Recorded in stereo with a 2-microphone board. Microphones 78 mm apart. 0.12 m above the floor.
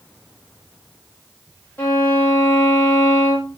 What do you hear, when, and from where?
1.8 s a violin: 20° left (ahead or behind), 6.5 m